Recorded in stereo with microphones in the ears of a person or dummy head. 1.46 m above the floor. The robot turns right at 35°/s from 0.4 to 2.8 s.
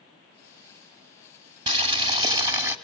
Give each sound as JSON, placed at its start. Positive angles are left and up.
{"t": 1.7, "sound": "boiling", "azimuth_deg": -75, "distance_m": 1.7}